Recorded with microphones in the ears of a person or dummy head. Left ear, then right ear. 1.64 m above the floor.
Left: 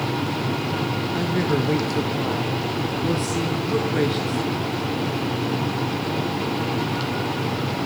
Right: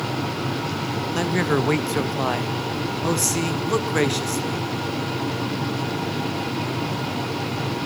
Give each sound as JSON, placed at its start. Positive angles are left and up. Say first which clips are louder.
{"t": 1.1, "sound": "a man speaking", "louder": "right 3 dB", "side_deg": -35, "distance_m": 0.8}